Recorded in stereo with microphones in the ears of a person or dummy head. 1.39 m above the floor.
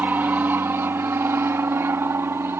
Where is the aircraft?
10° right (ahead or behind).